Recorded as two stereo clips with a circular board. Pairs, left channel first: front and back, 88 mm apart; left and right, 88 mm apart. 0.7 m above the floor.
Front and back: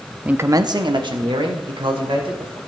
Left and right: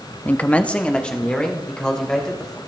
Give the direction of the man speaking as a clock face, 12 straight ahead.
8 o'clock.